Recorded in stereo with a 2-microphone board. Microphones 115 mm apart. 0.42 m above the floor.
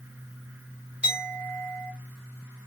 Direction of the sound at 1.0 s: 10° right (ahead or behind).